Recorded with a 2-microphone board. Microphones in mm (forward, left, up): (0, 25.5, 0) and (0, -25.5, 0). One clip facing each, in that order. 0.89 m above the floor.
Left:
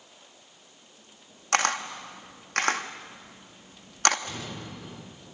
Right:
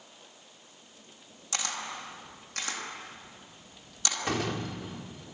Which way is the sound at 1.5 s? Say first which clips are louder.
Left 10 dB; 55° left (ahead or behind).